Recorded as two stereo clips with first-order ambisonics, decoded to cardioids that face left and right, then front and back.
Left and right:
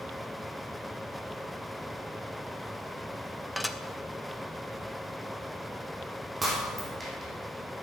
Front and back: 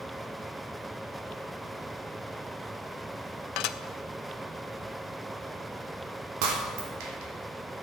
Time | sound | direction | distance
3.6 | dishes clattering | 5° left | 0.6 m
6.4 | breaking glass | 165° right | 2.5 m